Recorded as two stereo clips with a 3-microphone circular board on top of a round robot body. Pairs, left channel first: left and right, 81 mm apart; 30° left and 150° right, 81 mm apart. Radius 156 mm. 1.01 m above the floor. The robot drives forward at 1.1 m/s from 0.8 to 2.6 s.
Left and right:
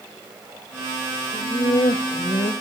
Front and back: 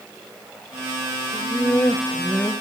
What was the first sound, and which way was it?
Laughter, 70° left.